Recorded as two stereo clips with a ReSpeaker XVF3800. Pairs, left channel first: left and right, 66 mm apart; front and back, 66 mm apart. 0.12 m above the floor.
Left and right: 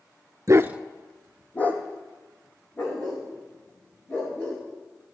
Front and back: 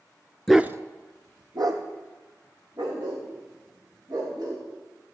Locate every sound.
0.5 s a dog barking: 80° right, 0.5 m; by 4.6 s 150° left, 6 m